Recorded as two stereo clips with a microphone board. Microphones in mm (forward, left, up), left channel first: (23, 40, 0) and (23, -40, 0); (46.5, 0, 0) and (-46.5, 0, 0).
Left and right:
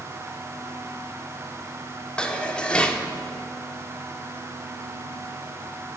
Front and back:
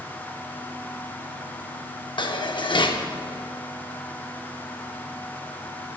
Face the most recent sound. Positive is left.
turn(degrees=15)